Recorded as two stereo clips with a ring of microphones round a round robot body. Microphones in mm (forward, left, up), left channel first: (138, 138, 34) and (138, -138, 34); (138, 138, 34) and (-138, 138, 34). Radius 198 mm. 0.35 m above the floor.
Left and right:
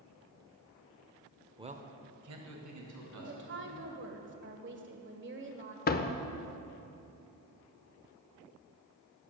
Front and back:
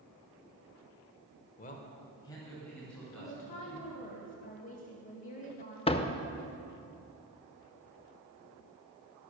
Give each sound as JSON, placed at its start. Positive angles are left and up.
{"t": 1.6, "sound": "a man speaking", "azimuth_deg": -25, "distance_m": 0.9}
{"t": 3.2, "sound": "a woman speaking", "azimuth_deg": -55, "distance_m": 1.4}
{"t": 5.9, "sound": "a door slam", "azimuth_deg": 60, "distance_m": 0.6}